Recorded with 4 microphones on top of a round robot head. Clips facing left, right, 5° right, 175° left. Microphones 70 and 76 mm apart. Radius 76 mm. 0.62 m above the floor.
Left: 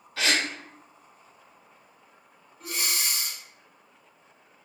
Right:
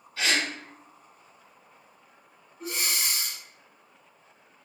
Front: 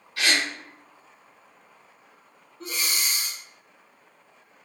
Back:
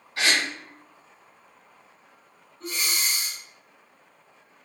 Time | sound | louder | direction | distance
0.2 | a gasp | left 1 dB, even | 110° left | 0.7 m
2.6 | breathing | even, even | 20° right | 1.0 m